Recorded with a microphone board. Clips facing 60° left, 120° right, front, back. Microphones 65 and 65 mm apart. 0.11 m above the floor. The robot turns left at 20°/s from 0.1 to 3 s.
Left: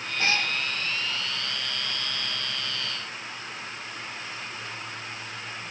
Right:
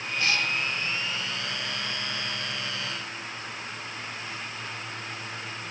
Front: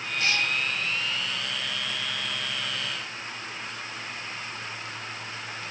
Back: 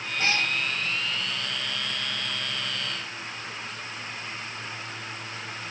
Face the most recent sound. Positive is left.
turn(degrees=65)